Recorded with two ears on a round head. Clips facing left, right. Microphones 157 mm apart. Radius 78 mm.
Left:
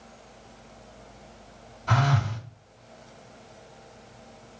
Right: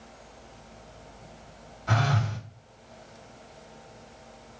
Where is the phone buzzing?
5° right (ahead or behind), 1.4 m.